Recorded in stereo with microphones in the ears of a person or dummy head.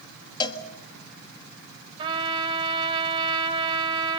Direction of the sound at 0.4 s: 25° left (ahead or behind).